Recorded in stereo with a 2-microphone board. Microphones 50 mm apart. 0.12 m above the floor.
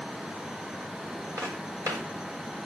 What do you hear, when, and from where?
1.4 s footsteps: 90° right, 5.5 m